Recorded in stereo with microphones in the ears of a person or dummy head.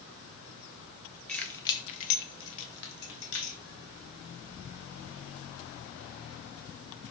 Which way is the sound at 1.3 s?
5° left (ahead or behind).